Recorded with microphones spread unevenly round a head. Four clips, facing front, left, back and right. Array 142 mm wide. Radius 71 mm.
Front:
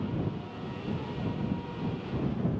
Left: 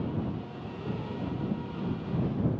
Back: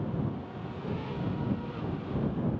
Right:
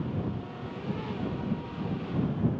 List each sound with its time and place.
Only background noise.